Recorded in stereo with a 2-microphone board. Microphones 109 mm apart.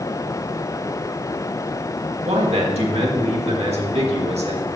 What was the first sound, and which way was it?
A man speaking, 75° right (ahead or behind).